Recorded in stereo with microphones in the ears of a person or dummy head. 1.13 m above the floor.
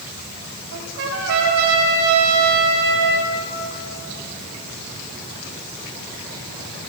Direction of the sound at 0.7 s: 60° right (ahead or behind).